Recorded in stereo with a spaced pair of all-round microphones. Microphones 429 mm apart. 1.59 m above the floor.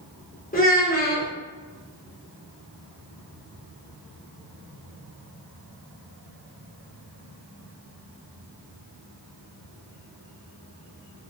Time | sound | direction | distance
0.5 | a child speaking | 20° left (ahead or behind) | 0.7 m